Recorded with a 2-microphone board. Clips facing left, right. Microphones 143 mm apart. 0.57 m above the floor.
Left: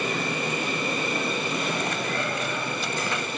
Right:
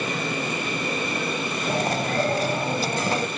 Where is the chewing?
40° right (ahead or behind).